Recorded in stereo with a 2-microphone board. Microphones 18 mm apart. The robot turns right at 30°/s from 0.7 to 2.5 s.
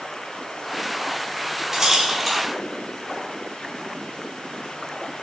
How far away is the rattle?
About 2.5 m.